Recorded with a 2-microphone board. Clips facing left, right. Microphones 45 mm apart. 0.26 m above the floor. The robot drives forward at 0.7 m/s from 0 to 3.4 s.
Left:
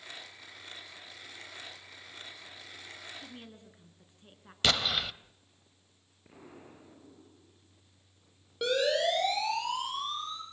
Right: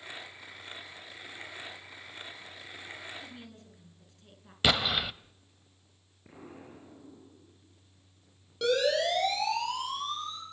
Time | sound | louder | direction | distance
3.2 | a woman speaking | right 1 dB | 20° left (ahead or behind) | 4 m
4.6 | an explosion | right 2 dB | 10° right (ahead or behind) | 0.7 m
6.2 | an explosion | right 3 dB | 5° right (ahead or behind) | 5 m
8.6 | a siren | right 1 dB | 15° left (ahead or behind) | 9.5 m